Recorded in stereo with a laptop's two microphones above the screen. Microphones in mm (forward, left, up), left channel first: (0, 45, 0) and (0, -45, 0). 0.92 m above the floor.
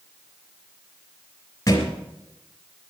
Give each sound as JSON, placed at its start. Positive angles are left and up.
{"t": 1.7, "sound": "a thud", "side_deg": 40, "distance_m": 3.5}